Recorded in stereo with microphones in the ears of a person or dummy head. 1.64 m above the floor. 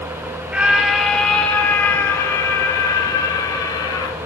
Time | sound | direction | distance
0.5 | a scream | 15° right (ahead or behind) | 3.5 m